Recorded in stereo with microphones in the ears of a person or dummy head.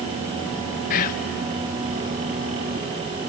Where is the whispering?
50° left (ahead or behind), 0.9 m.